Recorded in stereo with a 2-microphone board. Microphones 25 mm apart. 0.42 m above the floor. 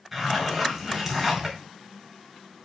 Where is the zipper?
5° right (ahead or behind), 4.5 m.